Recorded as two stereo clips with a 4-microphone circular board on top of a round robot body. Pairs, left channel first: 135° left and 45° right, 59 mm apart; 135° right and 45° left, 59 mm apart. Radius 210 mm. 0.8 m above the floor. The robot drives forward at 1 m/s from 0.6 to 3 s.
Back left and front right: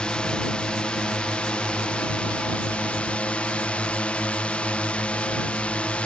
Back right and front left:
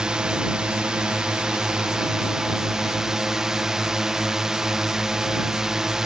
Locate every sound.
0.0 s a drone: 95° left; by 6.1 s 110° left